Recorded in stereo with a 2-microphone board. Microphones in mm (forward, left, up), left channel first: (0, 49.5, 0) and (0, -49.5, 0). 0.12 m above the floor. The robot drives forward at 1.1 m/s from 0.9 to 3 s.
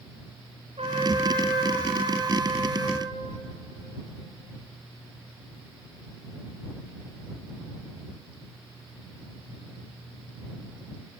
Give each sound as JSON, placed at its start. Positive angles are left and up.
{"t": 0.8, "sound": "a trumpet", "side_deg": -85, "distance_m": 4.5}